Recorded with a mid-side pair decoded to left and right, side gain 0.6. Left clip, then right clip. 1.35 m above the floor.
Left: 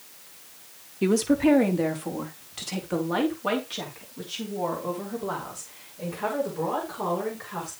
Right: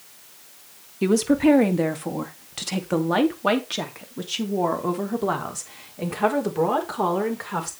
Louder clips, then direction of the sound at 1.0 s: Right 3 dB; 10° right.